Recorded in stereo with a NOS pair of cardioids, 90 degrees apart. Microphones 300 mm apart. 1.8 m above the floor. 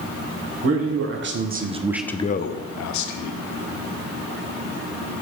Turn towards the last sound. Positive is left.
turn(degrees=80)